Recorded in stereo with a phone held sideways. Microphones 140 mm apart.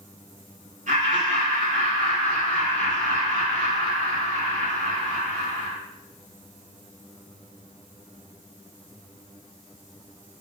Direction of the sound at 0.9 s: 70° right (ahead or behind).